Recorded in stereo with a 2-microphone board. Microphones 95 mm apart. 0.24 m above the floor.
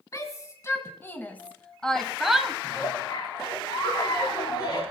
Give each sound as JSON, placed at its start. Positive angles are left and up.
{"t": 0.1, "sound": "a shout", "side_deg": 35, "distance_m": 2.0}
{"t": 2.6, "sound": "a giggle", "side_deg": 45, "distance_m": 5.0}